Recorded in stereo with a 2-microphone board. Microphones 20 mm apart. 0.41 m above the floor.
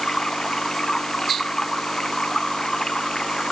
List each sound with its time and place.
0.0 s running water: 30° left (ahead or behind)